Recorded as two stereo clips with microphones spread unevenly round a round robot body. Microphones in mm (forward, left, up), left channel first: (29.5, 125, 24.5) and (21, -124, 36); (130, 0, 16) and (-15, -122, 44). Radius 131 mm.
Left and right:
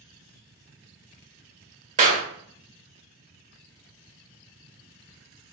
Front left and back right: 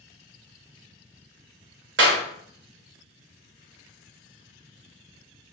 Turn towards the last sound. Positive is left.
turn(degrees=-150)